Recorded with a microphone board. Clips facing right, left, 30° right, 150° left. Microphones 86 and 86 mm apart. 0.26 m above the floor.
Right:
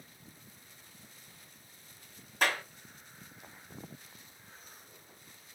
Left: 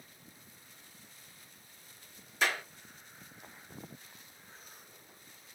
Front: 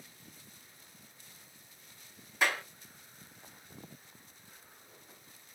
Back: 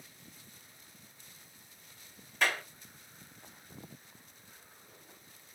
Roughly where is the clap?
Right.